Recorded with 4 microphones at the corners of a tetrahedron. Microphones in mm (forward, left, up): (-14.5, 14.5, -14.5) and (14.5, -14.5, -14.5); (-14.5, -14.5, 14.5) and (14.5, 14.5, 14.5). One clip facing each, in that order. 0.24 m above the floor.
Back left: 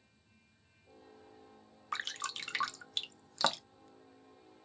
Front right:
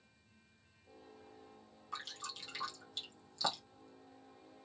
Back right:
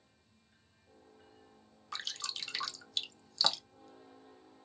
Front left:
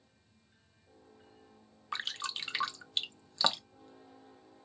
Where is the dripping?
110° left, 0.5 m.